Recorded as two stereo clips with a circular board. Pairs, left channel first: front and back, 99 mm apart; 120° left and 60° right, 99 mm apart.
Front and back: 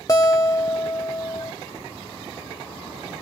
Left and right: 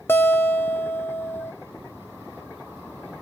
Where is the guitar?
55° left, 1.8 m.